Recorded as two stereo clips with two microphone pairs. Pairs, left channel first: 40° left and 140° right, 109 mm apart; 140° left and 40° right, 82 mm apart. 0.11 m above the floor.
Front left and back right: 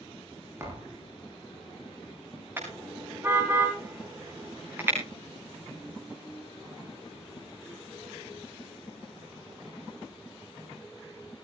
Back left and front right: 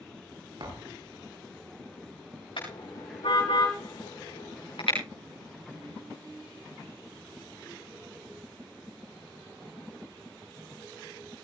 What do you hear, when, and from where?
0.6 s a thud: 75° right, 9.5 m
2.6 s a car horn: 150° left, 8 m